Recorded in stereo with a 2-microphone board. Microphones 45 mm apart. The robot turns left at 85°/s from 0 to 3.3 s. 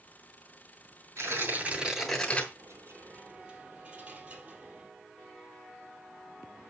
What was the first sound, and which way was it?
Tearing paper, 100° right.